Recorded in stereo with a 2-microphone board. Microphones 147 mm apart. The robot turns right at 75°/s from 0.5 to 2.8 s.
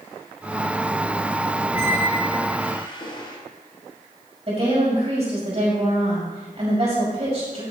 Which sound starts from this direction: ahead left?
A squeak, at 1.7 s.